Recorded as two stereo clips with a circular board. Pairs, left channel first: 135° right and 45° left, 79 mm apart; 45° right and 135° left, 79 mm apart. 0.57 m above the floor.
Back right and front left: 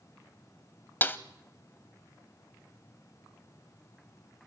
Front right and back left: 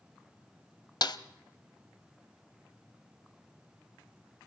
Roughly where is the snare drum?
Right.